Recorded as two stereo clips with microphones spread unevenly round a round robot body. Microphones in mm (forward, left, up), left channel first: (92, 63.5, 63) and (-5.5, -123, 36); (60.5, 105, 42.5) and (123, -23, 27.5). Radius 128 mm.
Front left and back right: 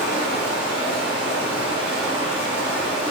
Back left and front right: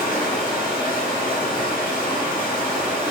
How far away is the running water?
About 1.4 m.